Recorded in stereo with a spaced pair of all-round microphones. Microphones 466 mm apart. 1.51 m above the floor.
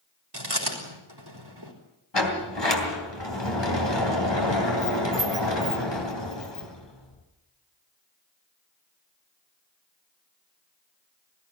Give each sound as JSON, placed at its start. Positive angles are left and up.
{"t": 0.3, "sound": "chewing", "side_deg": -50, "distance_m": 4.0}
{"t": 2.1, "sound": "a sliding door", "side_deg": 55, "distance_m": 3.0}